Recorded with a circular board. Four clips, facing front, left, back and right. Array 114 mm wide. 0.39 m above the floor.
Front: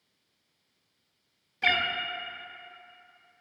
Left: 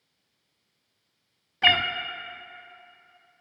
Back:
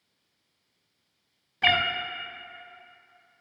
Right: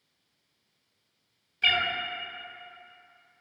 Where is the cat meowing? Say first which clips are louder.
Left 5 dB, back 4 dB; 115° left, 0.7 m.